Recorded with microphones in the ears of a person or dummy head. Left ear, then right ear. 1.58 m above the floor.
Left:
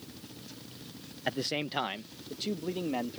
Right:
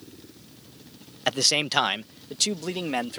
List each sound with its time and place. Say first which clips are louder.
1.3 s a man speaking: right 10 dB; 45° right (ahead or behind); by 3.2 s 65° right (ahead or behind)